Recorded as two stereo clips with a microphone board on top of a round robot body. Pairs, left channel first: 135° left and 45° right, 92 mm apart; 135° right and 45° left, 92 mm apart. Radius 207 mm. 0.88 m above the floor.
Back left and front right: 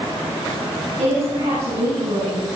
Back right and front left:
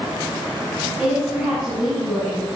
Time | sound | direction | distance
1.0 | a woman speaking | 35° right | 6.5 m